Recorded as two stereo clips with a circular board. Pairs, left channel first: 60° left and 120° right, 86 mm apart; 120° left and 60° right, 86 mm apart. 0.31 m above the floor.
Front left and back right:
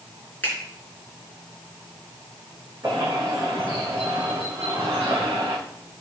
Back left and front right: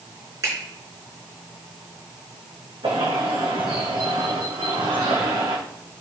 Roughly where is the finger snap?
Ahead.